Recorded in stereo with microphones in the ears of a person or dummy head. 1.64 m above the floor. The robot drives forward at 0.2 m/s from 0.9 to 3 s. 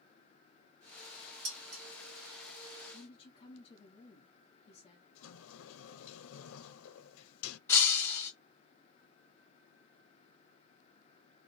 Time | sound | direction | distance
1.4 | dishes clattering | 65° right (ahead or behind) | 2 m
2.9 | a woman speaking | 25° left (ahead or behind) | 1.1 m
5.2 | a sliding door | 80° left | 0.6 m
7.7 | breaking glass | 10° left (ahead or behind) | 1.6 m